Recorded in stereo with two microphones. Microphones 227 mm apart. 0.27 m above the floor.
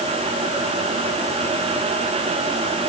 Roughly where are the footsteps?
No footsteps in this recording.